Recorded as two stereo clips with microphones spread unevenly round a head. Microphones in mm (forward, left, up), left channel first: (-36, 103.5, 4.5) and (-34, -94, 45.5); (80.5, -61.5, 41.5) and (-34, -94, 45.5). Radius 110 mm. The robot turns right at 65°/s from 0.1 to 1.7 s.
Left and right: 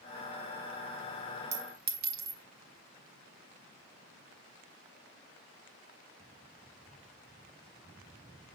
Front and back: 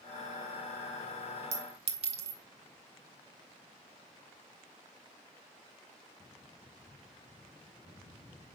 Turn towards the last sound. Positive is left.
turn(degrees=-130)